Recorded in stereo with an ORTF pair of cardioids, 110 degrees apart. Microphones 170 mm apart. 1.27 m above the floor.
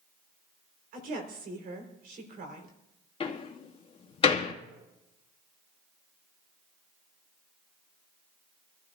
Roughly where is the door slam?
Ahead left.